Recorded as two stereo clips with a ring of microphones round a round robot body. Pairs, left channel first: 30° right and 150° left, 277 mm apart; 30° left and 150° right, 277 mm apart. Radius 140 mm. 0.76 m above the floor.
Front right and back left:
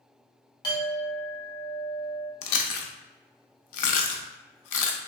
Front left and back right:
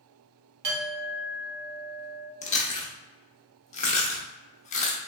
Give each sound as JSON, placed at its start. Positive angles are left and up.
{"t": 0.6, "sound": "a clink", "azimuth_deg": -105, "distance_m": 1.0}
{"t": 2.4, "sound": "chewing", "azimuth_deg": -35, "distance_m": 0.5}